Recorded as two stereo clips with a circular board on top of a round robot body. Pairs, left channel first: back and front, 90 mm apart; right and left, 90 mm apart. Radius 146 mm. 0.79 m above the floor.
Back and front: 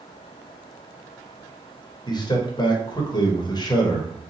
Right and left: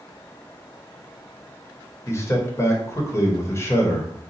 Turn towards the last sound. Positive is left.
turn(degrees=-145)